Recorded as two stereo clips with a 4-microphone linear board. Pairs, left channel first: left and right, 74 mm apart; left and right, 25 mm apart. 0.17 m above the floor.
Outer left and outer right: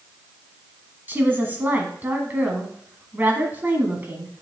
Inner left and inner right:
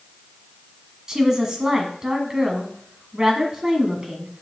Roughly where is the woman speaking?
Right.